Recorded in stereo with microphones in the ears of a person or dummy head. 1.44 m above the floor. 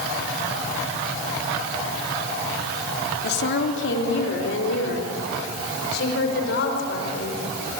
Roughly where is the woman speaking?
Left.